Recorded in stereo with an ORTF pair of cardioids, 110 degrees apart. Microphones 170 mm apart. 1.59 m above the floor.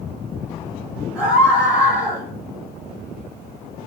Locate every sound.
1.1 s a scream: 5° right, 6.5 m